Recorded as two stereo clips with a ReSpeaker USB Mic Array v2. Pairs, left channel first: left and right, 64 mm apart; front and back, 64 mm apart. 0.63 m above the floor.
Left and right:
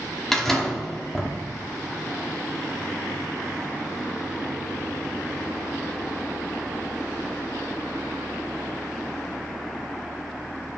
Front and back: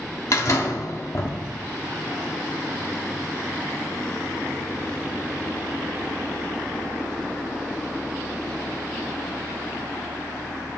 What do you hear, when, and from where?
0.3 s a door slam: 5° left, 1.1 m